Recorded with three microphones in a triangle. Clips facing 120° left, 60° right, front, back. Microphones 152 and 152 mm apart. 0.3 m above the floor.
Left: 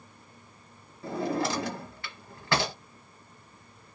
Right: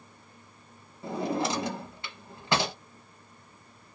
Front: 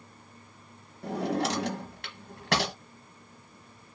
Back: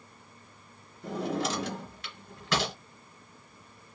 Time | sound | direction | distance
1.0 | a drawer | 10° left | 1.0 m